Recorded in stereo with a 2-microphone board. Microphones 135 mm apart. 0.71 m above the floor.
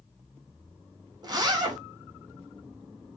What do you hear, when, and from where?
1.2 s a zipper: 35° right (ahead or behind), 0.8 m